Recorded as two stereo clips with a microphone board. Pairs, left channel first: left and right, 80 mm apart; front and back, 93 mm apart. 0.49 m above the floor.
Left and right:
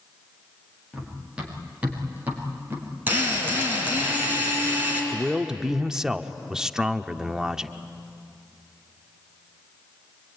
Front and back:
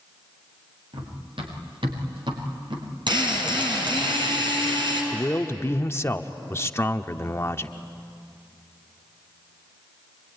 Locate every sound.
0.9 s running footsteps: 170° right, 6.5 m; by 2.9 s 155° right, 6 m
3.1 s a drill: 155° right, 6.5 m
5.1 s a man speaking: 15° right, 0.7 m